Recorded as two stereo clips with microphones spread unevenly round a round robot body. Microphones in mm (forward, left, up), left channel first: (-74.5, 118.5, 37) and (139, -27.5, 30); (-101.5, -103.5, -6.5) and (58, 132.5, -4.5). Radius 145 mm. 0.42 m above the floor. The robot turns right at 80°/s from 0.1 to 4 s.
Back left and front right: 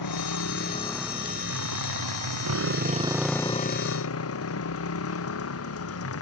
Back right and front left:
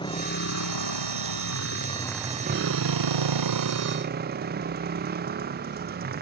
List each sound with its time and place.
0.0 s a motorcycle: 160° left; by 6.2 s 115° left